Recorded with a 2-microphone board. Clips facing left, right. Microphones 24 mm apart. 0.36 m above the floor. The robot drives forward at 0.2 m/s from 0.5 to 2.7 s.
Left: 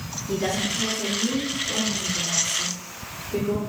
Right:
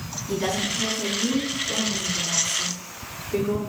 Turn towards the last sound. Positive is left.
turn(degrees=-45)  # may be behind; listen again after turning